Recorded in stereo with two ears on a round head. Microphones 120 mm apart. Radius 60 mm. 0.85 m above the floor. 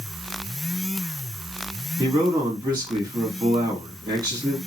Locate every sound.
2.0 s a man speaking: 25° right (ahead or behind), 1.3 m